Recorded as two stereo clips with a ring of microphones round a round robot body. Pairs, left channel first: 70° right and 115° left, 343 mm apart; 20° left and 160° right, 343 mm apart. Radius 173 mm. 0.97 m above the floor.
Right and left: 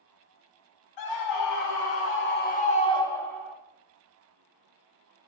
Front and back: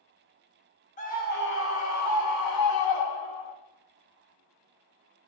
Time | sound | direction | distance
1.0 | a scream | 45° right | 2 m